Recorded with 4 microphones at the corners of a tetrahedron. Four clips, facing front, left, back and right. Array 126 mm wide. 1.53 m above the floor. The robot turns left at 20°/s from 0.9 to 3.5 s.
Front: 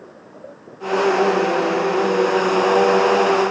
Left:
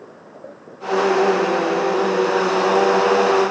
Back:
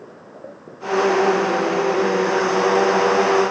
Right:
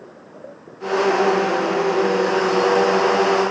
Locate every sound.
Only background noise.